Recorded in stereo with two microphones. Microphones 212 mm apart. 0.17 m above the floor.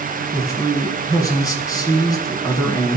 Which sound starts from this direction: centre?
A man speaking, at 0.3 s.